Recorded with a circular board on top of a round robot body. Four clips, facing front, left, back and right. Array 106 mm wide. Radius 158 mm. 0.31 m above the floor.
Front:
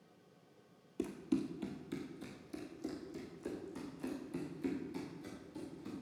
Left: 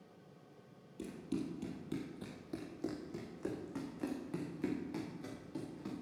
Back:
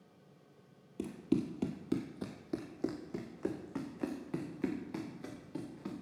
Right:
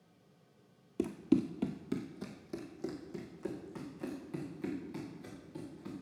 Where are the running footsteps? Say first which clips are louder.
Right 10 dB, back 3 dB; 90° right, 0.7 m; by 5.9 s 165° left, 4 m.